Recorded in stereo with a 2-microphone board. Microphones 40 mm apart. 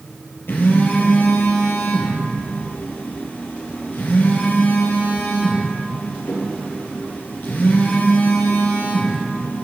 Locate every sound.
0.5 s a phone buzzing: 70° left (ahead or behind), 2.5 m